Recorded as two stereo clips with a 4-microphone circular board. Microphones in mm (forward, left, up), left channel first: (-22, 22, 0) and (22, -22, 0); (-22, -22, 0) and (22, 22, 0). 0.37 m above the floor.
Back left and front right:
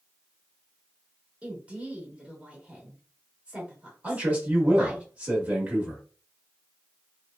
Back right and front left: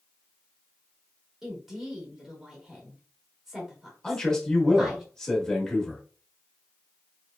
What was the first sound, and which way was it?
A woman speaking, 35° right.